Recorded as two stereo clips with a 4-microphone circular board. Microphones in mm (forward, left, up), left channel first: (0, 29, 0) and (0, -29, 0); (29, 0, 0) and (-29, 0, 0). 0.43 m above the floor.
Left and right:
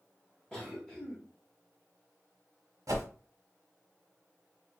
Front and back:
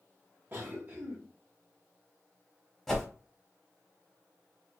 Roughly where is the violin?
I don't hear a violin.